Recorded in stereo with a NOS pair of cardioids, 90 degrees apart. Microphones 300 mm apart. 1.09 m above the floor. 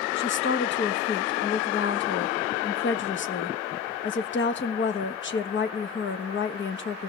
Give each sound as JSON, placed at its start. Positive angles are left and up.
{"t": 0.2, "sound": "a woman speaking", "azimuth_deg": 40, "distance_m": 1.3}